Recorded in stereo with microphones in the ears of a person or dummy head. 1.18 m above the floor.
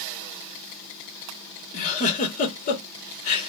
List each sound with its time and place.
1.7 s a giggle: 45° left (ahead or behind), 1.3 m